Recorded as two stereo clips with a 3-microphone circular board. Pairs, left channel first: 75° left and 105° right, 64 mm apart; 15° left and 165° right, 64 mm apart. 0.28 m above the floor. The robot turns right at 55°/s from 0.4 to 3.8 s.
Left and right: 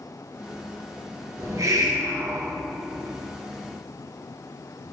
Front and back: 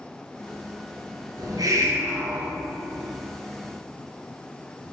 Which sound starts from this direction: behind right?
A hiss, at 1.4 s.